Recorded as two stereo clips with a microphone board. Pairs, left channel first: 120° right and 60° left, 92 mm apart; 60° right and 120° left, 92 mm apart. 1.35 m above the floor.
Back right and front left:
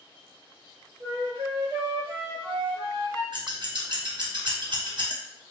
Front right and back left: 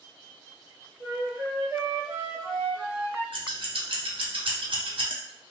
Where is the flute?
70° left, 1.0 m.